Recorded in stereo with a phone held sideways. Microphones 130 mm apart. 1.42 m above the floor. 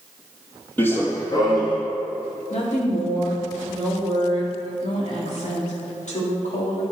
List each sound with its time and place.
0.8 s running footsteps: 15° left (ahead or behind), 1.7 m; by 1.8 s 35° left (ahead or behind), 2.5 m
2.5 s a woman speaking: 65° left (ahead or behind), 3.5 m